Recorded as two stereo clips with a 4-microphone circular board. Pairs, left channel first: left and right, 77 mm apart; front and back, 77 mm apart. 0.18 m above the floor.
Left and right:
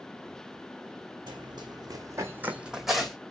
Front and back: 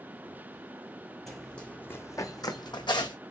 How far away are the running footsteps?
About 0.8 m.